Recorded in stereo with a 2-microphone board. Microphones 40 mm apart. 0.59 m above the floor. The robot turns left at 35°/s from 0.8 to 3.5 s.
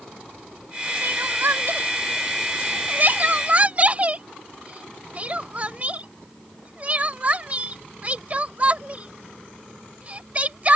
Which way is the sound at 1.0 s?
55° right (ahead or behind).